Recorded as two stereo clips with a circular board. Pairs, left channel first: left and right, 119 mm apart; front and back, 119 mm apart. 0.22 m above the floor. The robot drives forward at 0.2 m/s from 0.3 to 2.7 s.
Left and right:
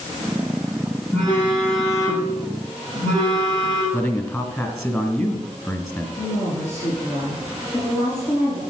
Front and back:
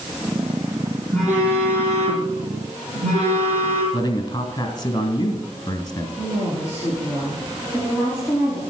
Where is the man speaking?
30° left, 1.8 m.